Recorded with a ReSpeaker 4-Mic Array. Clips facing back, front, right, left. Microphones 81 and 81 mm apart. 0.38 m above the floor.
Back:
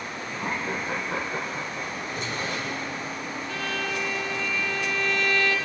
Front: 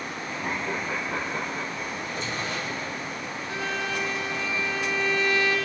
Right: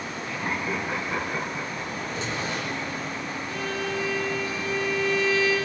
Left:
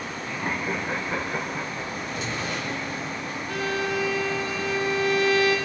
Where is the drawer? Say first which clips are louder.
Even, right 1 dB; 150° right, 6.5 m.